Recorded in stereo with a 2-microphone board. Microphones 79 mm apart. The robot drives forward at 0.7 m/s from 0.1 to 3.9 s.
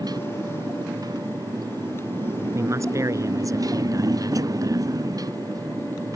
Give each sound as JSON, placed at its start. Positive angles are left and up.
{"t": 0.0, "sound": "a motorcycle", "side_deg": -55}
{"t": 2.5, "sound": "a man speaking", "side_deg": -40}